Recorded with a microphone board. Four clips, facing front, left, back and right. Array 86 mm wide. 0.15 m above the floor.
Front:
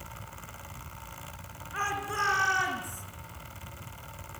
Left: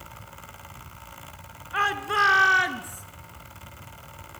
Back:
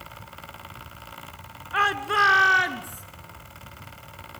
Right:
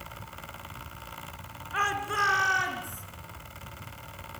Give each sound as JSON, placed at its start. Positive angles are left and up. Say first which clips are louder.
{"t": 1.7, "sound": "a shout", "louder": "left 4 dB, back 9 dB", "azimuth_deg": 165, "distance_m": 2.5}